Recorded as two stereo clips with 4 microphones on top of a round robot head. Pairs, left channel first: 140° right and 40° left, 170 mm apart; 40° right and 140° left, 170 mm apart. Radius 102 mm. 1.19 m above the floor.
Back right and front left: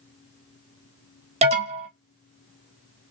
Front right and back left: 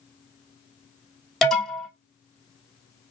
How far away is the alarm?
About 1.2 m.